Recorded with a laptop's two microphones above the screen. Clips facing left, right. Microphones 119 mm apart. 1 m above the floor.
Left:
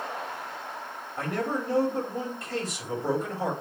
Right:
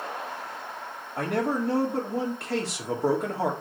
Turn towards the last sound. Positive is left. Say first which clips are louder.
# right 3 dB
turn(degrees=-75)  # may be behind; listen again after turning